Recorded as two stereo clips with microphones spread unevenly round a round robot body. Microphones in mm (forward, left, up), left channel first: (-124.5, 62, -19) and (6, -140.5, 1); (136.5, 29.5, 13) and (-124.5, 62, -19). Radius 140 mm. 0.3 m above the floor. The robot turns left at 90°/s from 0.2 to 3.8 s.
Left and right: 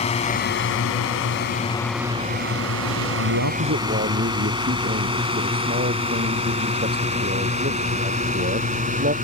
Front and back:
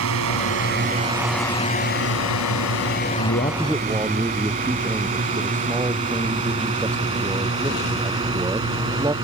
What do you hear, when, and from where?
0.0 s a drone: straight behind; by 9.2 s 110° right
3.2 s a man speaking: 50° right; by 9.1 s 105° right